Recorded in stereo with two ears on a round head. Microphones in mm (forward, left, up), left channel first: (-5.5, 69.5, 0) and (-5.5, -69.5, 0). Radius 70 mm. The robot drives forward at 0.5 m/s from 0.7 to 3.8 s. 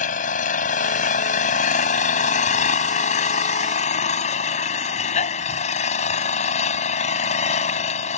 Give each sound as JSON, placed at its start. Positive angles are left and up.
{"t": 0.0, "sound": "an engine running", "side_deg": 55}